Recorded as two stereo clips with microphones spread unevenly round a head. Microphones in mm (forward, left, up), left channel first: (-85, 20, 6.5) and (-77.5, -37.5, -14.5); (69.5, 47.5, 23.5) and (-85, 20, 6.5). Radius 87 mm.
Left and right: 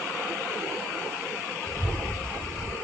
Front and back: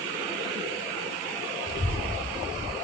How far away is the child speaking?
About 4.5 m.